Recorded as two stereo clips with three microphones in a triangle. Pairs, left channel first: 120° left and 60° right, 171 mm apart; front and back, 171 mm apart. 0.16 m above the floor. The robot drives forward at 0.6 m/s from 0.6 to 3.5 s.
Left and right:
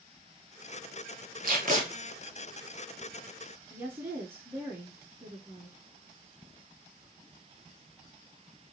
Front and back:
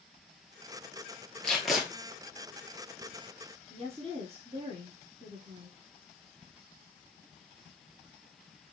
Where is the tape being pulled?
85° right, 1.7 m; by 1.9 s 95° right, 1.7 m.